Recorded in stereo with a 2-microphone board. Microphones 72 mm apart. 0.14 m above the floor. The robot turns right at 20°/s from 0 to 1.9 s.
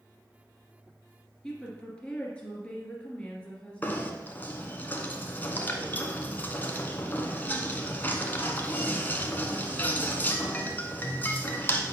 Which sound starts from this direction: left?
Knocking, at 3.8 s.